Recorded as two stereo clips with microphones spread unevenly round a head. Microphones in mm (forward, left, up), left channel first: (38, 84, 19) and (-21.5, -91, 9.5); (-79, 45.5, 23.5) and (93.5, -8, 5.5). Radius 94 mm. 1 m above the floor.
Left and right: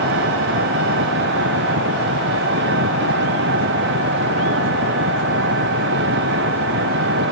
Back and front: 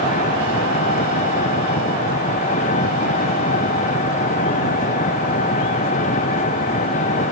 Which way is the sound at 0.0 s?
140° right.